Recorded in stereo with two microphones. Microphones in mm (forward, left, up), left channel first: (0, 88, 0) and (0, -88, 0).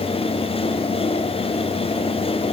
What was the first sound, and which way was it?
Only background noise.